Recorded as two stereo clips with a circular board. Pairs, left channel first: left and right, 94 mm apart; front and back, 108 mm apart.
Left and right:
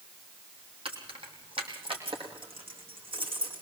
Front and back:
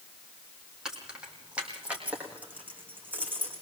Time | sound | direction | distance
0.8 | keys jangling | 95° right | 4 m